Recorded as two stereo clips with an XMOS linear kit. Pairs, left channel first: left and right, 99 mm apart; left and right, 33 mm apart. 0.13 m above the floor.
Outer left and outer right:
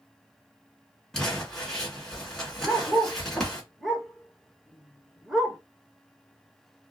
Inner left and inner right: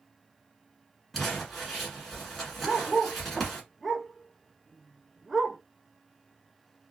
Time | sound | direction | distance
1.1 | crumpling | 5° left (ahead or behind) | 1.5 m
2.6 | a dog barking | centre (ahead or behind) | 0.6 m